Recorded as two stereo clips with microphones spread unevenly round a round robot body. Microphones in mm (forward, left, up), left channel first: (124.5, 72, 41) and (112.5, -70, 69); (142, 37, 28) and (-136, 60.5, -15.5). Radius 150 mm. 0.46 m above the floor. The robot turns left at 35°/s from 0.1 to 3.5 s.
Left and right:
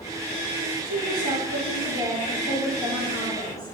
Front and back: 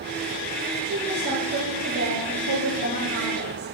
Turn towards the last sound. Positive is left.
turn(degrees=155)